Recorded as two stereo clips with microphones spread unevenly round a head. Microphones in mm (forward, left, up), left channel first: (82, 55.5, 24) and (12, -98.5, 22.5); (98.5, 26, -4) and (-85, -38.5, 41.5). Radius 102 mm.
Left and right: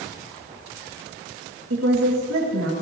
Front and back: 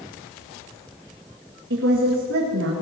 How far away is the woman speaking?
About 2.5 m.